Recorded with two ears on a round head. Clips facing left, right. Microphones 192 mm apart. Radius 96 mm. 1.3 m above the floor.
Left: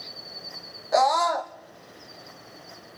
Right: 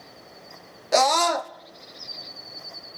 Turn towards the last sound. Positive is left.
turn(degrees=-40)  # may be behind; listen again after turning